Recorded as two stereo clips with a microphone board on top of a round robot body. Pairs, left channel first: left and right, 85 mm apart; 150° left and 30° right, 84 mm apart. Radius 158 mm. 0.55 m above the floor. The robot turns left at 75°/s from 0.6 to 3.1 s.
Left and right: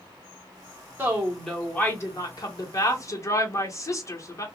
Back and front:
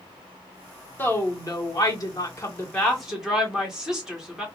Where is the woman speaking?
150° right, 1.7 m; by 4.5 s 50° left, 1.7 m.